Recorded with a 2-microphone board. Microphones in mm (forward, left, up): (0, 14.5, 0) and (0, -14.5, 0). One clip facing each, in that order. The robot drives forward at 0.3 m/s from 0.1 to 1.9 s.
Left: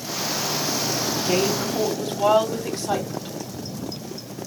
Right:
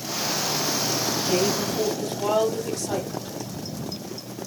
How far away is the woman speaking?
About 1.6 m.